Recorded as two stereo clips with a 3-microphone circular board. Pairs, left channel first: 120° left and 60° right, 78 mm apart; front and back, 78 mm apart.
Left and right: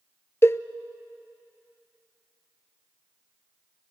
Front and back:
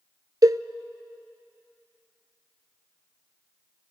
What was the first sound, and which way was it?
A cowbell, 165° left.